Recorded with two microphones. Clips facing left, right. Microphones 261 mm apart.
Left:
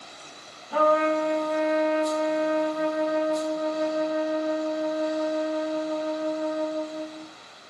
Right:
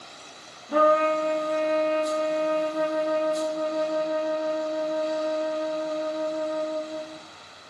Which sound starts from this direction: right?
A trumpet, at 0.7 s.